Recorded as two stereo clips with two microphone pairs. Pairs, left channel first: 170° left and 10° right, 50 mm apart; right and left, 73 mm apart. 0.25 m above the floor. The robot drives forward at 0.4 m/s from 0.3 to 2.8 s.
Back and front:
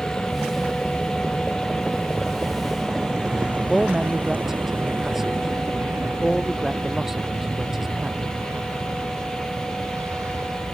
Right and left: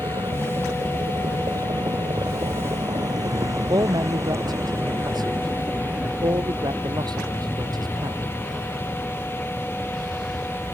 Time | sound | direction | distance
0.0 | a vehicle | 95° left | ?
3.7 | a man speaking | 75° left | ?